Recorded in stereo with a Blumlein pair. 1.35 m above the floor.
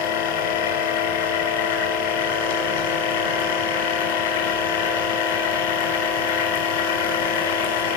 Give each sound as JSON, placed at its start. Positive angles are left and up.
{"t": 0.0, "sound": "a machine running", "azimuth_deg": 60, "distance_m": 5.5}